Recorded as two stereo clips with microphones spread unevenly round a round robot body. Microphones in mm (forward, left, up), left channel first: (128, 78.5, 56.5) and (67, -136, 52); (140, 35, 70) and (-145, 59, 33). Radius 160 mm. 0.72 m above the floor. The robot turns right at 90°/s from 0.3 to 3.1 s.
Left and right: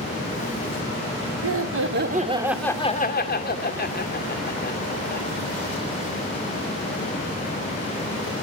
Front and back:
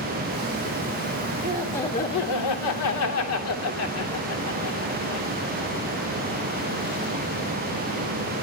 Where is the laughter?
120° right, 3 m; by 5.3 s 30° left, 3 m.